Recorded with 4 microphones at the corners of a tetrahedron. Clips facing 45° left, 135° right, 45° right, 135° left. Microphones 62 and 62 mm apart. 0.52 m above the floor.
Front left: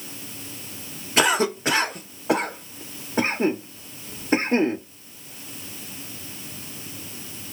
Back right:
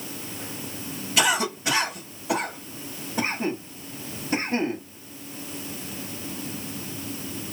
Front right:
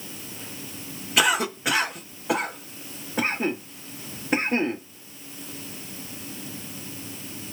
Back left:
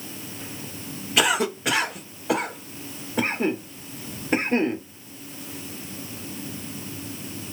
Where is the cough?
40° left, 1.5 m.